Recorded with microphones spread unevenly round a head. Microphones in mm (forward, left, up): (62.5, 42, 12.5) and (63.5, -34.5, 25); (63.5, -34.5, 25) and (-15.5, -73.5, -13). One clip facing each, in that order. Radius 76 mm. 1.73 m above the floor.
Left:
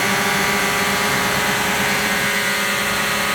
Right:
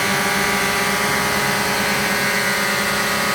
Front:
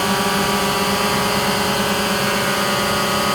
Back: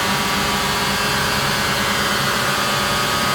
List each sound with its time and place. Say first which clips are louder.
0.0 s a drone: even, front 2 dB; 15° left; by 3.4 s 10° right